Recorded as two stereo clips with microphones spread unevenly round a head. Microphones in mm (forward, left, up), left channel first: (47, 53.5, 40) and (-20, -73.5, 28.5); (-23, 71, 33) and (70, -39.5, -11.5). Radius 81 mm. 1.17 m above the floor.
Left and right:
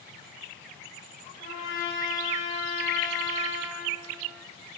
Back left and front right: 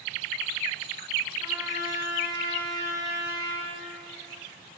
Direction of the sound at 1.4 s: 25° left.